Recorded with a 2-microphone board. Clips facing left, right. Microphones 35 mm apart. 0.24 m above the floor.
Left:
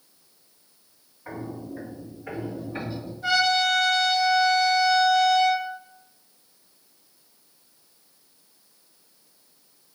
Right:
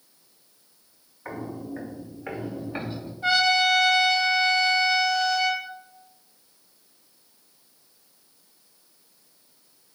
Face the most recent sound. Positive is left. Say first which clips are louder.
# right 1 dB
turn(degrees=-40)  # may be behind; listen again after turning